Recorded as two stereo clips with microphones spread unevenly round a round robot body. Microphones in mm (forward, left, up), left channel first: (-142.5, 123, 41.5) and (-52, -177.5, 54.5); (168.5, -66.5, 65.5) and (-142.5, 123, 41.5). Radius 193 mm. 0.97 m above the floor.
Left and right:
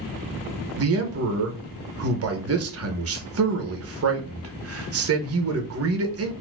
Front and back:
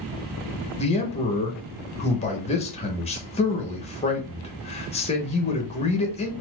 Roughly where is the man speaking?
Right.